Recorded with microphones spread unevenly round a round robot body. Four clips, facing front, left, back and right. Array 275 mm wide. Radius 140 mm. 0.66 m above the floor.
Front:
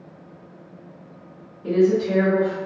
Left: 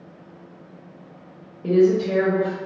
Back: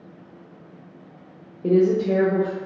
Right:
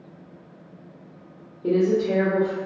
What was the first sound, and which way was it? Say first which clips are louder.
A woman speaking: left 3 dB, even; straight behind.